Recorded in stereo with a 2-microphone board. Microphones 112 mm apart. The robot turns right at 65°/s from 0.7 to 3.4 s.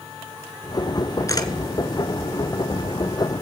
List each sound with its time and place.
1.3 s a camera shutter: 30° left (ahead or behind), 0.9 m; by 1.5 s 45° left (ahead or behind), 0.9 m